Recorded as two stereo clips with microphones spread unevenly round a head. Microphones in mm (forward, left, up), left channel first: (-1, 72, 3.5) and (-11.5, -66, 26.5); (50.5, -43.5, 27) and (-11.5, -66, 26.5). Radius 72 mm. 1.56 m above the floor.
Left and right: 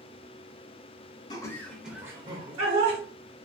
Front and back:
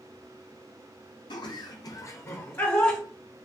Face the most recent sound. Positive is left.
turn(degrees=-50)